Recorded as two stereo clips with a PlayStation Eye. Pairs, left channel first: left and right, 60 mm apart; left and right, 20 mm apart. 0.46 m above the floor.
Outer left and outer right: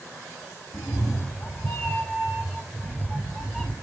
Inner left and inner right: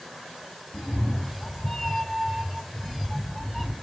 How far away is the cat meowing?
About 0.9 m.